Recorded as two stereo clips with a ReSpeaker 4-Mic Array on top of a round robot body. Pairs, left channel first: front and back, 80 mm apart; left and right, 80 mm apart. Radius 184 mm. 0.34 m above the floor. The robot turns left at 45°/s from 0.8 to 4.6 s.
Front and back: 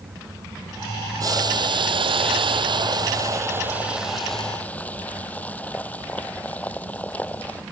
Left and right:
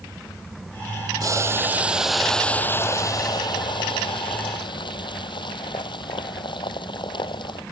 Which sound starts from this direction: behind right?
Boiling, at 1.2 s.